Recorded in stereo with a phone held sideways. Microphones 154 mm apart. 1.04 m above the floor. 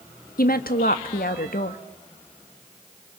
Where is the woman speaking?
75° left (ahead or behind), 1.6 m.